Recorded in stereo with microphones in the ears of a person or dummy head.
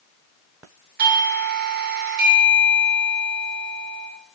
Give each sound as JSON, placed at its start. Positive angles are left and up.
{"t": 1.0, "sound": "a doorbell", "side_deg": -50, "distance_m": 1.5}